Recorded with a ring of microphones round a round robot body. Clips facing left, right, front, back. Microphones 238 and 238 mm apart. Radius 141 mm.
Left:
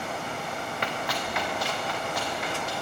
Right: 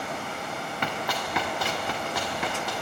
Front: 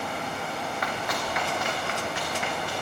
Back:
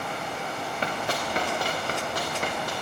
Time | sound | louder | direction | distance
0.8 | running footsteps | right 1 dB, back 4 dB | 110° right | 3.5 m